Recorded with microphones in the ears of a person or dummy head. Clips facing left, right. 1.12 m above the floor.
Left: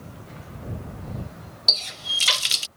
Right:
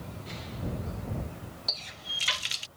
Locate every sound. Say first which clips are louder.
1.7 s a running tap: left 7 dB; 60° left (ahead or behind)